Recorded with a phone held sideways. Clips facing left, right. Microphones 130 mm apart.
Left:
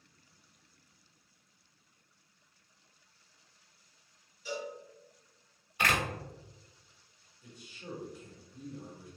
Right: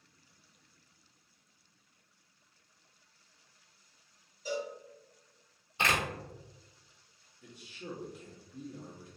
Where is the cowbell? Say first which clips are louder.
Right 3 dB; 40° right (ahead or behind), 2.0 m.